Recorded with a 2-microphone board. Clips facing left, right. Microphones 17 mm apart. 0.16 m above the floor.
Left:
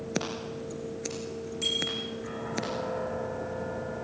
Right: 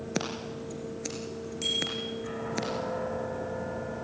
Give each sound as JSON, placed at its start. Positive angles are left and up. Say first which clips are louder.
{"t": 0.1, "sound": "scissors", "louder": "even", "side_deg": -5, "distance_m": 3.0}
{"t": 1.6, "sound": "a bicycle bell", "louder": "even", "side_deg": -15, "distance_m": 7.0}